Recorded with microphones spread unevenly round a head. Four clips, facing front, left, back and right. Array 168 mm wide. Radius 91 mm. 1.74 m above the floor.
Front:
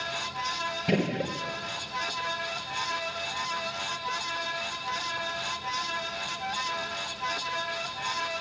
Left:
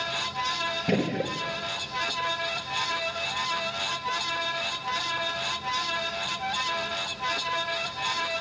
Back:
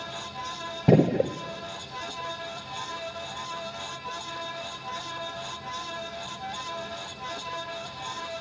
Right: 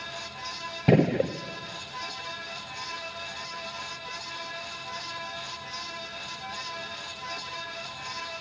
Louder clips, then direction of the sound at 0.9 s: Right 6 dB, back 8 dB; 155° right.